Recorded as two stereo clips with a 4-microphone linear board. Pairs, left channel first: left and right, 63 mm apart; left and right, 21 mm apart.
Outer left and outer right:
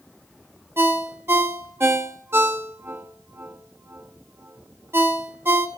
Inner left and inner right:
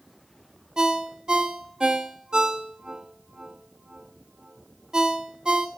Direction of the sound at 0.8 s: 35° right (ahead or behind).